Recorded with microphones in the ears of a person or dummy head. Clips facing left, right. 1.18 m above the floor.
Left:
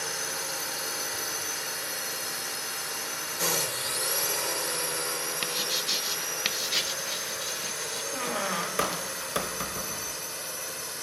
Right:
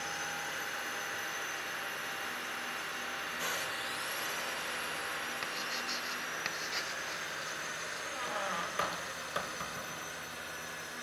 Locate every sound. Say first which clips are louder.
0.0 s a drone: left 5 dB; 75° left (ahead or behind); by 11.0 s 70° left (ahead or behind)
5.4 s writing: left 7 dB; 45° left (ahead or behind)
8.1 s a squeak: left 7 dB; 60° left (ahead or behind)